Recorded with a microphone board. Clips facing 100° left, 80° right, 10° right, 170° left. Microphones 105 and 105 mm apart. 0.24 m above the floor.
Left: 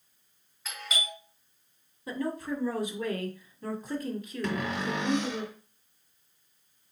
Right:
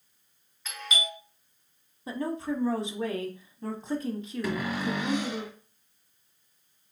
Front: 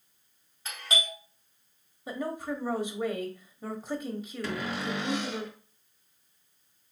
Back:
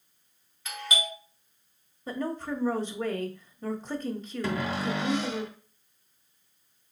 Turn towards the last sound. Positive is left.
turn(degrees=-155)